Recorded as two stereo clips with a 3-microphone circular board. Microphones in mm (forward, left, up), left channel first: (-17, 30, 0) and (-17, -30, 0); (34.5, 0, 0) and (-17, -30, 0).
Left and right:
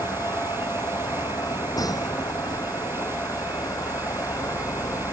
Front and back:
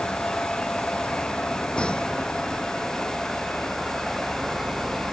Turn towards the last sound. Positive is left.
turn(degrees=120)